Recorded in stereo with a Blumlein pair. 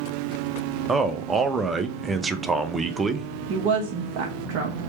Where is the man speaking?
10° right, 0.6 m.